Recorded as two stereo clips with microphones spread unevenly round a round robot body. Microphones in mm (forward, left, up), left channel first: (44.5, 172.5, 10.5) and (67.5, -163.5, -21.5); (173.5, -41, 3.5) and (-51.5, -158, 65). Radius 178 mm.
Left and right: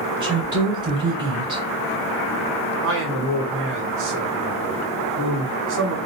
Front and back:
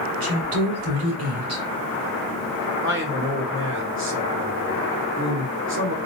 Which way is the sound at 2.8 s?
115° right.